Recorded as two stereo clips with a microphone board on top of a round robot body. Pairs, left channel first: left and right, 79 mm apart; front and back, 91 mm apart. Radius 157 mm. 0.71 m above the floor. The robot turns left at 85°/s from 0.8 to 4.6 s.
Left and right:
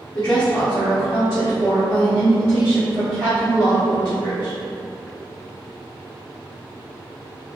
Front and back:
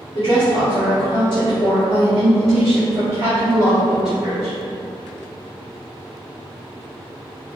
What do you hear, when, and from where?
0.1 s a woman speaking: 40° left, 1.4 m; by 4.5 s 85° left, 1.4 m